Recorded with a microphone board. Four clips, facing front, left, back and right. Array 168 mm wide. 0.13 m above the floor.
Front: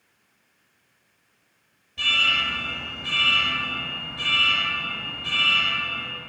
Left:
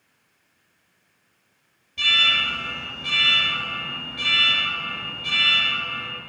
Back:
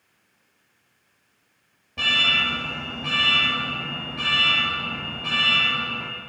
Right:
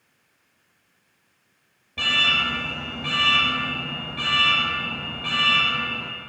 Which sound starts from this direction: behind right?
An alarm, at 2.0 s.